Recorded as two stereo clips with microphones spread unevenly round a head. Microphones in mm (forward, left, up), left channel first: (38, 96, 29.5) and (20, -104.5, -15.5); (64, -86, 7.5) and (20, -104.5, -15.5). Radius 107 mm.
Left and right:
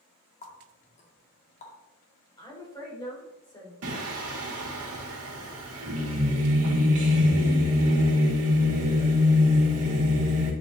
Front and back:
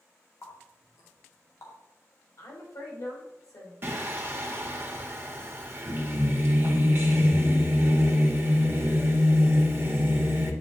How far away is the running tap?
About 2 m.